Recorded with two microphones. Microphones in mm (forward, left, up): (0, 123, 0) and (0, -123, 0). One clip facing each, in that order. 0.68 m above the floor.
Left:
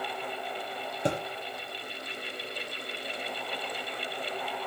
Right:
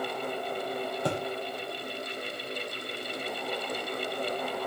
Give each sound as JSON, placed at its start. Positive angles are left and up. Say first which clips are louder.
{"t": 1.1, "sound": "a thud", "louder": "left 2 dB", "side_deg": 20, "distance_m": 6.5}